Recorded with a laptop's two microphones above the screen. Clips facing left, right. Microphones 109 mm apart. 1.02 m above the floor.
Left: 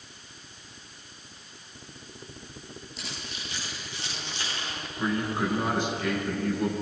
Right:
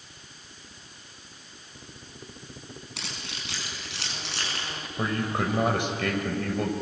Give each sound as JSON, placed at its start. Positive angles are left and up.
{"t": 3.0, "sound": "keys jangling", "side_deg": -85, "distance_m": 6.0}
{"t": 5.0, "sound": "a man speaking", "side_deg": -70, "distance_m": 5.5}